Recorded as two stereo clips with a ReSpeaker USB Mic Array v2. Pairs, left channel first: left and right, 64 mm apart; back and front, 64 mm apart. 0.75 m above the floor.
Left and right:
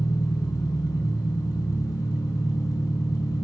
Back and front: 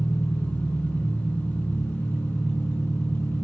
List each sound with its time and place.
0.0 s an engine running: 110° left, 4.5 m